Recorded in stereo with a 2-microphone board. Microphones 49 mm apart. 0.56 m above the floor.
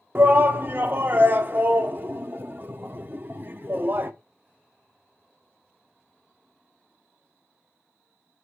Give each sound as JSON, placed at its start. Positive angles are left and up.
{"t": 0.1, "sound": "a shout", "side_deg": -45, "distance_m": 0.8}